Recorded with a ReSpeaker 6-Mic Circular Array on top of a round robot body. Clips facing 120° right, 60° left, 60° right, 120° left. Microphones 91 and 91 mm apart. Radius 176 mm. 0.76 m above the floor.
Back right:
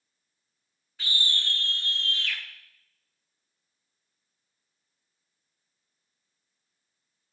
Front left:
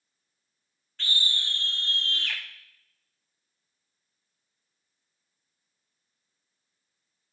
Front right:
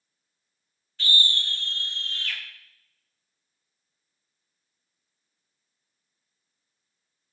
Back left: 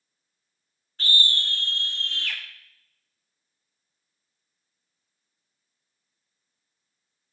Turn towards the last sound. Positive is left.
turn(degrees=100)